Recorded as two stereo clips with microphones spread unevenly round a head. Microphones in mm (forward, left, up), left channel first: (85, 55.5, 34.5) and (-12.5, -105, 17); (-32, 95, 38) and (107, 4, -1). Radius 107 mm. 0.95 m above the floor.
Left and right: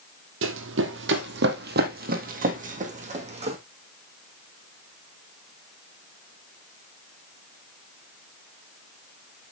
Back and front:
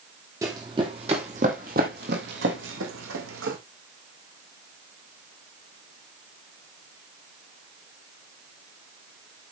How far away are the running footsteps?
About 2.0 m.